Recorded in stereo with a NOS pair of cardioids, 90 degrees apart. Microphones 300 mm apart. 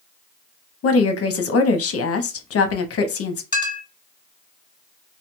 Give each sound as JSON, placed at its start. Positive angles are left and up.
{"t": 0.8, "sound": "a woman speaking", "azimuth_deg": 50, "distance_m": 0.8}
{"t": 3.5, "sound": "a clink", "azimuth_deg": 15, "distance_m": 1.0}